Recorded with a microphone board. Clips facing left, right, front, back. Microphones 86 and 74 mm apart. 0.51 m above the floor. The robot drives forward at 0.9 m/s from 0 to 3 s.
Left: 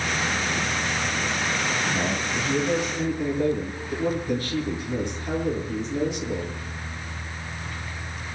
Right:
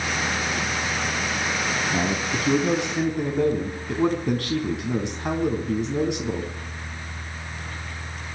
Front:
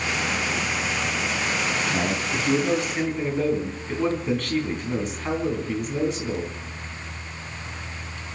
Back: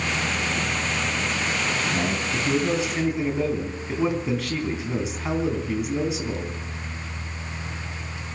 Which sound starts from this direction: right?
A man speaking, at 1.9 s.